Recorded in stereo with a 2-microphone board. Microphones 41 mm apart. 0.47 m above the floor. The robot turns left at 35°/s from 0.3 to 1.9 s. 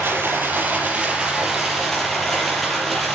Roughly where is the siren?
No siren in this recording.